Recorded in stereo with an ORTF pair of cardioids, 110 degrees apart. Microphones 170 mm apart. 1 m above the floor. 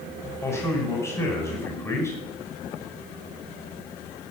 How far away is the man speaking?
About 5 m.